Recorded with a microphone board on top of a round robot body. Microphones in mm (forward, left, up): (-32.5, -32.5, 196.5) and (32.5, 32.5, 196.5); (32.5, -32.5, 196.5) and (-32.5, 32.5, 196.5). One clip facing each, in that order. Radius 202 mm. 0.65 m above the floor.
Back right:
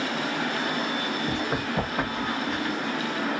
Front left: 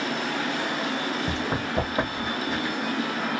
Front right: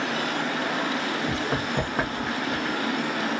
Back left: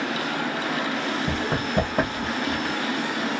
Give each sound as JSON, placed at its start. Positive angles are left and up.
{"t": 1.3, "sound": "running footsteps", "azimuth_deg": 90, "distance_m": 1.6}